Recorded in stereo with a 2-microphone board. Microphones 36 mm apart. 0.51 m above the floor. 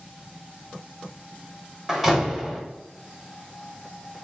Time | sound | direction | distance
1.9 | a door slam | centre (ahead or behind) | 1.4 m